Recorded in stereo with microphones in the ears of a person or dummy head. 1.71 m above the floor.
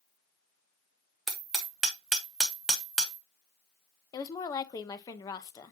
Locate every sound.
1.3 s hammering: centre (ahead or behind), 1.0 m
4.1 s a woman speaking: 25° left (ahead or behind), 0.8 m